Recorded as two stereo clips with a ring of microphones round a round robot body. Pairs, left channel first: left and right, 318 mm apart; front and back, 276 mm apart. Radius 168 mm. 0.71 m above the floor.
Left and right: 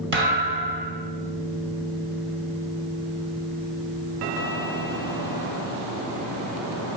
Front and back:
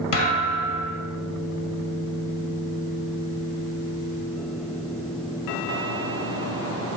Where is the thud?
35° right, 1.3 m.